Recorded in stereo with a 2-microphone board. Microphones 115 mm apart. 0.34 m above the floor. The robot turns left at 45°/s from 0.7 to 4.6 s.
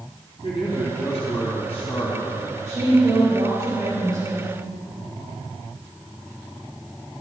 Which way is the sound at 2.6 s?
80° right.